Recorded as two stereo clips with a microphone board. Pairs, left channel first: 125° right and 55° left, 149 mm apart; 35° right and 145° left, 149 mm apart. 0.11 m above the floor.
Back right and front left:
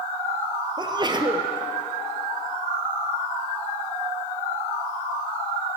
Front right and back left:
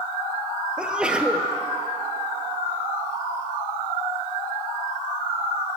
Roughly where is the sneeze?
Left.